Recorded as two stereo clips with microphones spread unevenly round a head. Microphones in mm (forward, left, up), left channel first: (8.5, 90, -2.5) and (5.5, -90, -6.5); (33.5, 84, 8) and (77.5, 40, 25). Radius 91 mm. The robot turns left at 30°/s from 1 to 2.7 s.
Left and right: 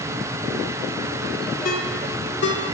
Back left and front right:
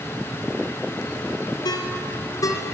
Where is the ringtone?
130° left, 2.5 m; by 2.6 s 100° left, 2.5 m.